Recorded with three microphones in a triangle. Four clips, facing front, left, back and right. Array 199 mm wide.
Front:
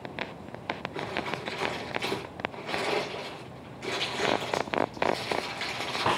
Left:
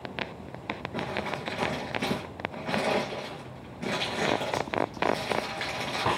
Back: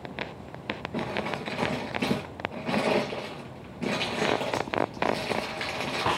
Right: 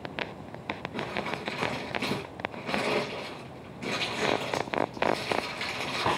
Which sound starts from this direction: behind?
Crumpling, at 0.9 s.